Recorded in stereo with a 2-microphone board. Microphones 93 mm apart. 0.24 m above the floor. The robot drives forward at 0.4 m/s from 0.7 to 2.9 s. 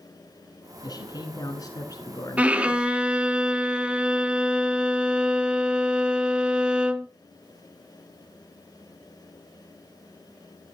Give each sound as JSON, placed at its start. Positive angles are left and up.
{"t": 0.8, "sound": "a man speaking", "side_deg": 45, "distance_m": 2.5}
{"t": 2.4, "sound": "a violin", "side_deg": -15, "distance_m": 0.8}